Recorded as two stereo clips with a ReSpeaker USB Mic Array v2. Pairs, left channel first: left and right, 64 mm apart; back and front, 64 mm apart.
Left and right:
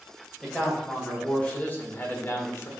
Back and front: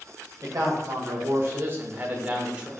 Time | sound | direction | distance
0.4 | a man speaking | 10° left | 2 m